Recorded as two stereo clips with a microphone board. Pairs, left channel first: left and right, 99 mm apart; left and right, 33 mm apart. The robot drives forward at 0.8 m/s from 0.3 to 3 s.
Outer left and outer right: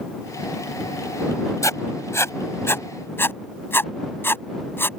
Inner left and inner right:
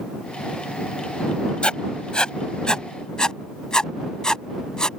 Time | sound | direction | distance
1.6 | writing | 35° left (ahead or behind) | ?